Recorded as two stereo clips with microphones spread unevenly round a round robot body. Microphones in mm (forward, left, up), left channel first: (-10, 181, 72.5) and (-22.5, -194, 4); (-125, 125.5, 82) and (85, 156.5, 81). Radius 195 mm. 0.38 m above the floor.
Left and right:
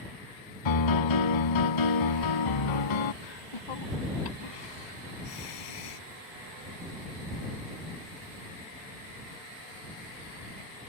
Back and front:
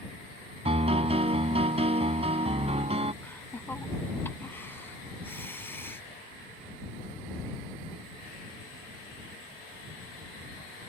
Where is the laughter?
110° left.